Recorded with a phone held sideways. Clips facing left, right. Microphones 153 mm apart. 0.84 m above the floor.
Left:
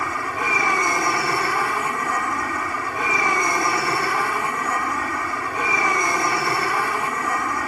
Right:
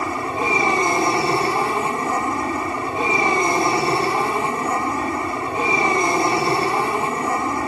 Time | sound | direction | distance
0.0 | an aircraft | 25° right (ahead or behind) | ?